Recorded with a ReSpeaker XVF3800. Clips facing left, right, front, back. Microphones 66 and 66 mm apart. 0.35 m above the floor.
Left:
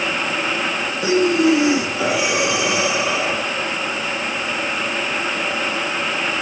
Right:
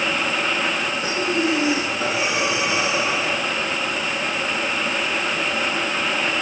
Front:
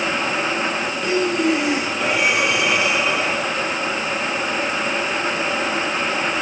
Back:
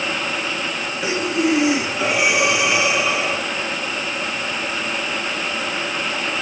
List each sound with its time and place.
1.0 s breathing: 95° left, 3.5 m